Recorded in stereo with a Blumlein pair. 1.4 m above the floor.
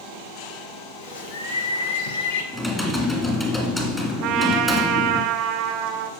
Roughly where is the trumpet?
Ahead right.